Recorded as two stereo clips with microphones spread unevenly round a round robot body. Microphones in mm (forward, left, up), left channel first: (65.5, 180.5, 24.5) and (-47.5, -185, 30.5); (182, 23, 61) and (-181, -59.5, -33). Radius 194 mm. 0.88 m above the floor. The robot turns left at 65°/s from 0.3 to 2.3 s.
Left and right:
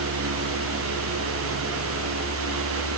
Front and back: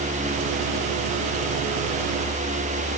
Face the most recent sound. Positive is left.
No sound to turn to.